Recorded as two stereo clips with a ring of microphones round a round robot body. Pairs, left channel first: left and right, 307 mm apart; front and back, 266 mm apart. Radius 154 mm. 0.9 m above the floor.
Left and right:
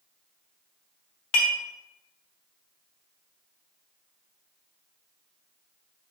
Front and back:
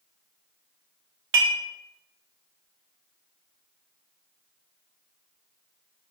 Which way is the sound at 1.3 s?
135° left.